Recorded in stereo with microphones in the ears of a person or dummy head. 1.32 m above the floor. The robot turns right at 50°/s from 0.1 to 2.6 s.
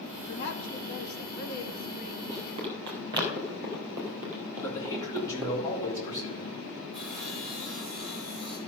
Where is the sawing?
5° left (ahead or behind), 6.5 m.